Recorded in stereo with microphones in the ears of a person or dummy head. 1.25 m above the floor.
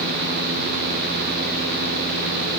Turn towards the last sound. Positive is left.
No sound to turn to.